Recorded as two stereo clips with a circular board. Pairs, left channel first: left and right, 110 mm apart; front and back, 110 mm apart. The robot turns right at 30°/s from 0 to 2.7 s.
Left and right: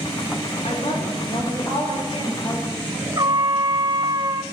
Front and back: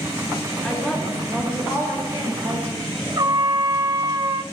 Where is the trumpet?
135° right, 0.5 m.